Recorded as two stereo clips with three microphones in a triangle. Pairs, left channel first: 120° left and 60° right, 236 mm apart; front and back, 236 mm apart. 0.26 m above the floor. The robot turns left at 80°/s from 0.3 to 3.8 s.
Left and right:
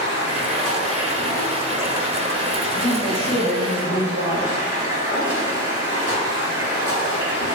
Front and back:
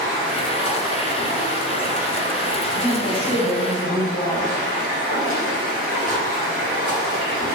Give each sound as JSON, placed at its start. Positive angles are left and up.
{"t": 0.0, "sound": "running water", "azimuth_deg": 150, "distance_m": 1.8}
{"t": 2.7, "sound": "a woman speaking", "azimuth_deg": 40, "distance_m": 1.5}